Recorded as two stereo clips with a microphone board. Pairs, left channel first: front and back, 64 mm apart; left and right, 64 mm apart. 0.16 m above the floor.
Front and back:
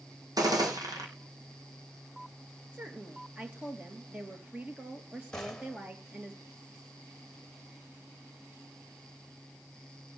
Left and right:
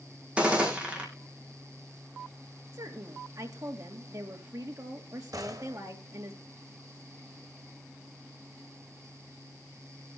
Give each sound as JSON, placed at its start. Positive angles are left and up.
{"t": 0.4, "sound": "a gunshot", "azimuth_deg": -160, "distance_m": 3.0}
{"t": 2.7, "sound": "a woman speaking", "azimuth_deg": -110, "distance_m": 3.0}
{"t": 5.3, "sound": "a gunshot", "azimuth_deg": -80, "distance_m": 3.0}